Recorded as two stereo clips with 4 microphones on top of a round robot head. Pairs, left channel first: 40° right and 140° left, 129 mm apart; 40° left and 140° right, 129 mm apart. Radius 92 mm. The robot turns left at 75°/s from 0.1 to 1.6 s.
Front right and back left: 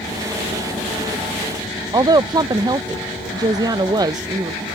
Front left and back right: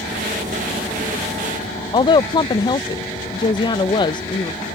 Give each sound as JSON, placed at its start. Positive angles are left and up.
{"t": 1.9, "sound": "a woman speaking", "azimuth_deg": 85}